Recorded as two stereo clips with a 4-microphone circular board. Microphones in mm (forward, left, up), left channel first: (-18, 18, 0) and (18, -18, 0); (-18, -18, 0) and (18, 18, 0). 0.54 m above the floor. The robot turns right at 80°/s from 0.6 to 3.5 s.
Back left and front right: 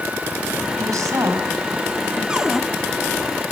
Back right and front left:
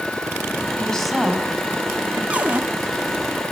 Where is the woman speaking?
70° right, 4.5 m; by 2.2 s 45° left, 4.5 m.